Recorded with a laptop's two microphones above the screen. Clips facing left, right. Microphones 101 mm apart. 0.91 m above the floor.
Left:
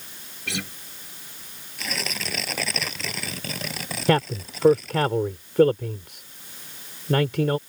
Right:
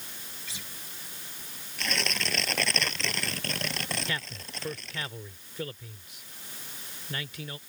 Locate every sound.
0.5 s a guitar: 70° left (ahead or behind)
1.8 s tearing paper: 5° left (ahead or behind)
4.1 s a man speaking: 70° left (ahead or behind)